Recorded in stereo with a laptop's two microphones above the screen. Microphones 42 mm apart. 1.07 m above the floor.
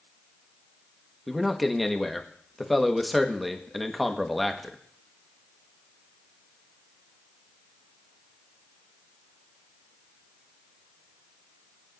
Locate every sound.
1.3 s a man speaking: centre (ahead or behind), 1.3 m